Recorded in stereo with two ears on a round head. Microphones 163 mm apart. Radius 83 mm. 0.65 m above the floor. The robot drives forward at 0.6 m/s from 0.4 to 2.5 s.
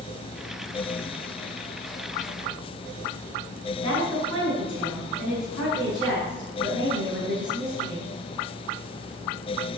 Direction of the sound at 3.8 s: 30° left (ahead or behind).